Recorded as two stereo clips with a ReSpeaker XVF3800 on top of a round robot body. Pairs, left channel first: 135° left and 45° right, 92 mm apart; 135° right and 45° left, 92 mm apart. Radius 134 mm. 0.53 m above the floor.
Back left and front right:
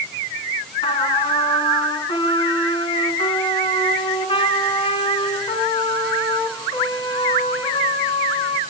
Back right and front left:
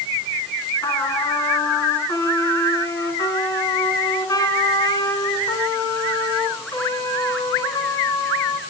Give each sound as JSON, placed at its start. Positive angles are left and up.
{"t": 0.8, "sound": "a trumpet", "azimuth_deg": 170, "distance_m": 4.0}